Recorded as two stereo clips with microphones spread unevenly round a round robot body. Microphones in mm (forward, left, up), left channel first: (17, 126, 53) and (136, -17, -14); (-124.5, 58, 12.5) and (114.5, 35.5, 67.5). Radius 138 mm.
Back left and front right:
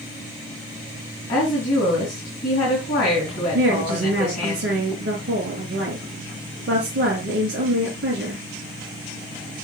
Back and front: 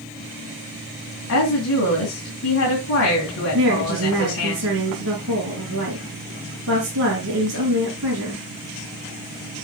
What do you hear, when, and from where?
1.3 s a woman speaking: 155° right, 2.5 m
3.5 s a woman speaking: 45° right, 4 m